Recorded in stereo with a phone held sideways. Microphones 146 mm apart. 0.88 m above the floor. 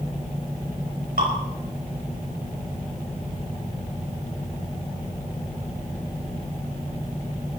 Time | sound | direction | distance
1.2 | dripping | 80° right | 5.5 m